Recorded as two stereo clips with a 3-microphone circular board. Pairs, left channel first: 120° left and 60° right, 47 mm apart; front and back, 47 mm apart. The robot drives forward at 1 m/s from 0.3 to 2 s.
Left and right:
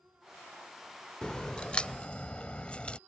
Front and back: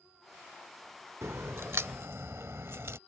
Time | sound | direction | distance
1.2 | a crack | 170° right | ?